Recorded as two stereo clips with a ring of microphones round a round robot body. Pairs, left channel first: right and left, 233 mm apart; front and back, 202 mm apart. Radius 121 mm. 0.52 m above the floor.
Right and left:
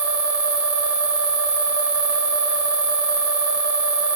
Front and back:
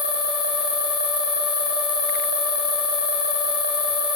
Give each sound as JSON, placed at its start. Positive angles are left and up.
{"t": 0.0, "sound": "an insect", "azimuth_deg": 5, "distance_m": 3.0}